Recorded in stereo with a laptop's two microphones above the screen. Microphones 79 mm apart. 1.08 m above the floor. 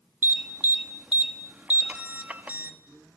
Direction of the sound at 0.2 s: 20° right (ahead or behind).